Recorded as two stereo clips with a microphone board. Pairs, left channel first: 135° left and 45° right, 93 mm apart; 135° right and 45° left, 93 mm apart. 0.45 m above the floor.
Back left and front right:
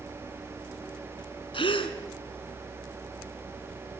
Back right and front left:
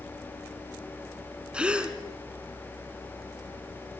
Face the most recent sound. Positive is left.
turn(degrees=125)